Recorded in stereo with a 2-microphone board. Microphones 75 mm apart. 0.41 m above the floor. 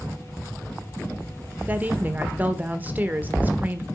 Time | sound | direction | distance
1.7 | a woman speaking | 20° right (ahead or behind) | 1.2 m